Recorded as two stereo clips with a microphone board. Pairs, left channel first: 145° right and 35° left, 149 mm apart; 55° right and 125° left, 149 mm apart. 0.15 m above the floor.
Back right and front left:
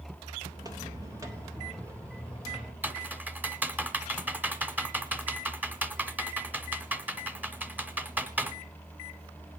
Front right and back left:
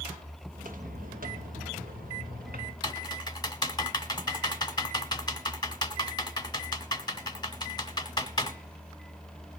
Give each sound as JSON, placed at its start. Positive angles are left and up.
{"t": 0.5, "sound": "footsteps", "azimuth_deg": 100, "distance_m": 2.5}
{"t": 2.8, "sound": "typing on a keyboard", "azimuth_deg": -35, "distance_m": 0.9}